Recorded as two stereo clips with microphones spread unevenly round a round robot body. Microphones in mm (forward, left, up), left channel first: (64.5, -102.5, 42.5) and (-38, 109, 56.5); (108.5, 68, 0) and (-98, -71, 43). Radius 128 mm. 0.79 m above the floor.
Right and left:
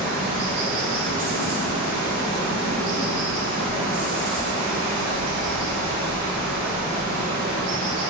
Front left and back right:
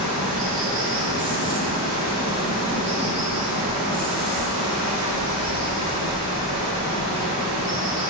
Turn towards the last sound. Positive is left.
turn(degrees=150)